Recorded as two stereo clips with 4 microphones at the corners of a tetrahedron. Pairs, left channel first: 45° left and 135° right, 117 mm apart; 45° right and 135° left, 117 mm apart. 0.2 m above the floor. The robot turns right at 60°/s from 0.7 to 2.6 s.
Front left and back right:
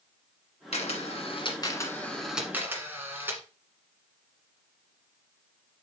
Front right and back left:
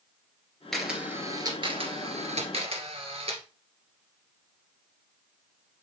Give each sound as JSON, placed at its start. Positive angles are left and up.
{"t": 0.7, "sound": "a camera shutter", "azimuth_deg": 40, "distance_m": 1.6}